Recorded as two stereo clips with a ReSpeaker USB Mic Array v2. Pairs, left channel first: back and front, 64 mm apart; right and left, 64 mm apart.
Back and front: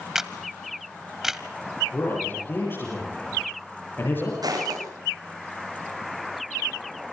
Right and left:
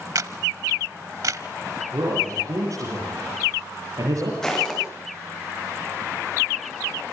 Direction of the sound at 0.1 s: 80° left.